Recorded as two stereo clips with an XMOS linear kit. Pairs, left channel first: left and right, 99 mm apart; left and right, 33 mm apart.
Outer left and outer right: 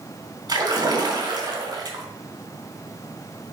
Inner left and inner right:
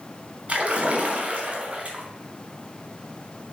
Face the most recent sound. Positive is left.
turn(degrees=-45)  # may be behind; listen again after turning